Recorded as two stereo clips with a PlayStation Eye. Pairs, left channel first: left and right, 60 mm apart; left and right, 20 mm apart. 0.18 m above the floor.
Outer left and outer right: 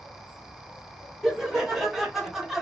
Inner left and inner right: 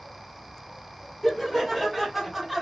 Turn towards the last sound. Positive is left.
turn(degrees=-5)  # may be behind; listen again after turning